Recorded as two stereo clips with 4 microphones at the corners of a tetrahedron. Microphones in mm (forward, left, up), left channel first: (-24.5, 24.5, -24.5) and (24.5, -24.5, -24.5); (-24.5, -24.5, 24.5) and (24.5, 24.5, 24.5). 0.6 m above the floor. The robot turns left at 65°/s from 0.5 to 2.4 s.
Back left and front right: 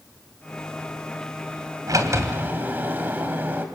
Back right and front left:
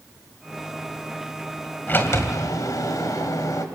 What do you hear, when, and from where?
1.9 s a sliding door: 75° right, 2 m; by 3.6 s 110° right, 2 m